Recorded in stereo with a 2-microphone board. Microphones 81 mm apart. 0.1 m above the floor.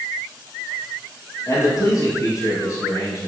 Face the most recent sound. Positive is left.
turn(degrees=45)  # may be behind; listen again after turning